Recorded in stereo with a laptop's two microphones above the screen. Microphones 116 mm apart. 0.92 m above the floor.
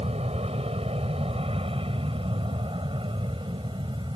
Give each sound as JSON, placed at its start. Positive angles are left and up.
{"t": 0.0, "sound": "an aircraft", "side_deg": -60}